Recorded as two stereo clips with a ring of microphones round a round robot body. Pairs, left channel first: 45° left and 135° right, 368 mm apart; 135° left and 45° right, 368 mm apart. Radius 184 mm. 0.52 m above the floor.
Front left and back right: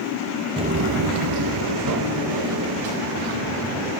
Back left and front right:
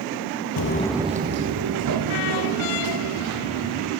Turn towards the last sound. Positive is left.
turn(degrees=-85)